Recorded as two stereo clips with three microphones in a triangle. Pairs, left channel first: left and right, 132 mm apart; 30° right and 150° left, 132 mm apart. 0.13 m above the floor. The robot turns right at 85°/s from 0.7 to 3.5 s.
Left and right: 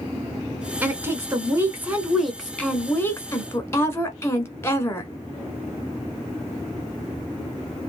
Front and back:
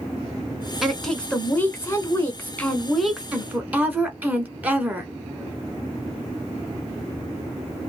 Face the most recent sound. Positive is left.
turn(degrees=100)